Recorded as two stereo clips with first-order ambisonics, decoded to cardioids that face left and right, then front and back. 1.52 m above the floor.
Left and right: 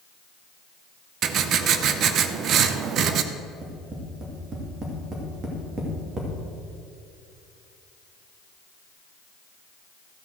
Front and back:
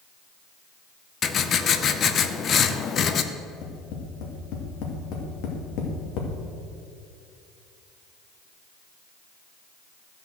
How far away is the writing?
About 0.6 m.